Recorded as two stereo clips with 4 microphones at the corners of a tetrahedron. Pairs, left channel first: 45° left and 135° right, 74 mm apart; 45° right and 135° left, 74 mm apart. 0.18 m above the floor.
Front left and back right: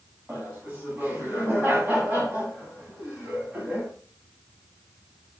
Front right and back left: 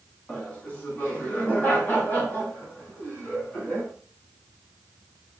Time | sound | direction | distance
0.3 | laughter | 90° right | 1.8 m